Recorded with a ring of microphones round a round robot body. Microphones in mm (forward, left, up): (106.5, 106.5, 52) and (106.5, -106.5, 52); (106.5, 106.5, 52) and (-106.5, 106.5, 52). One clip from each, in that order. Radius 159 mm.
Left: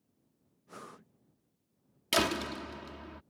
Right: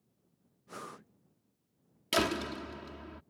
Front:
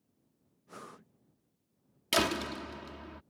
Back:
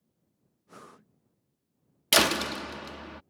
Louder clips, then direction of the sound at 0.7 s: Right 3 dB, front 1 dB; 80° right.